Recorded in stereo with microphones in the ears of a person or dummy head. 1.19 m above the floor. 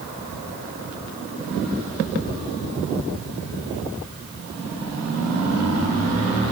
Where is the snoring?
No snoring in this recording.